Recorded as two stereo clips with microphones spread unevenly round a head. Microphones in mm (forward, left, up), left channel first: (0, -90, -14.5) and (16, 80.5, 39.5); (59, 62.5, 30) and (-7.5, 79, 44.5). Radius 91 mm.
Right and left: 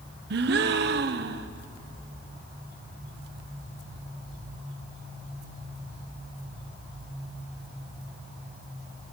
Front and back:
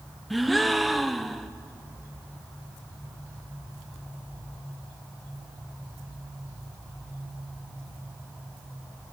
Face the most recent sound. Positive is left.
turn(degrees=80)